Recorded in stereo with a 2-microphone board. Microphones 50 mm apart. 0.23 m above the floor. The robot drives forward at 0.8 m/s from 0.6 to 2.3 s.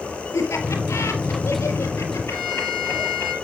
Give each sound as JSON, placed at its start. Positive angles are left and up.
{"t": 0.3, "sound": "laughter", "side_deg": 70, "distance_m": 6.0}
{"t": 2.3, "sound": "a violin", "side_deg": -10, "distance_m": 6.0}